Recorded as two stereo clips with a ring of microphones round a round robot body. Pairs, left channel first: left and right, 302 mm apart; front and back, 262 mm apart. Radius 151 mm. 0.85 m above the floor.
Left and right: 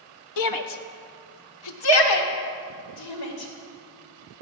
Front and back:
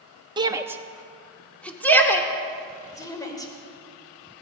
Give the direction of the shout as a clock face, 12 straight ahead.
8 o'clock.